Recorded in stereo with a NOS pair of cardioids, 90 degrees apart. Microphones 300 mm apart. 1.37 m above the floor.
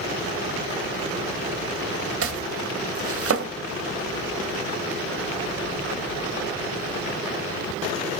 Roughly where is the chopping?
Ahead right.